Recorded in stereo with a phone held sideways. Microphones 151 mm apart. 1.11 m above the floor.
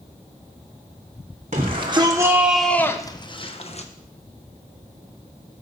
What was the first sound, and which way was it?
A shout, 45° right (ahead or behind).